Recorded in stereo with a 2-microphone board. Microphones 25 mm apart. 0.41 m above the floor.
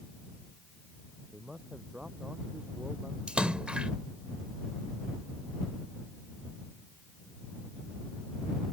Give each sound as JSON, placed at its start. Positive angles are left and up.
{"t": 1.3, "sound": "a man speaking", "side_deg": -40}
{"t": 3.3, "sound": "a splash", "side_deg": -50}